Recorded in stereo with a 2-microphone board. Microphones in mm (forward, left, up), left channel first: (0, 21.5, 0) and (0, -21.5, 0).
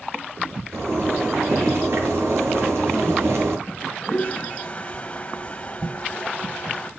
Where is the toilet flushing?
25° left (ahead or behind), 1.4 m.